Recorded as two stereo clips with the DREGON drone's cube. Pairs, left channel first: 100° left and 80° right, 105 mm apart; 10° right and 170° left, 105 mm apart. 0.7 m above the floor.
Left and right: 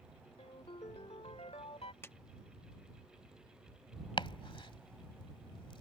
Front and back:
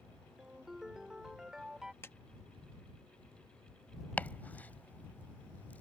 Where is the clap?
45° left.